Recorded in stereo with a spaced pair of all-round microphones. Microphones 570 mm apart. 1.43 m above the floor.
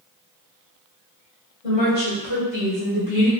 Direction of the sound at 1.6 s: 75° left (ahead or behind).